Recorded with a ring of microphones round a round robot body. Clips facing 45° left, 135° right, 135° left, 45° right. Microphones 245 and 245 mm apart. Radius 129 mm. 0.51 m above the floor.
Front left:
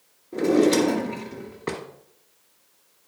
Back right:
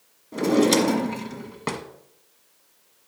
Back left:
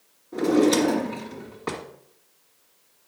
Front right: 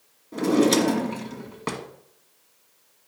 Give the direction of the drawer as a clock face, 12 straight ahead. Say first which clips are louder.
Front left 1 dB, even; 3 o'clock.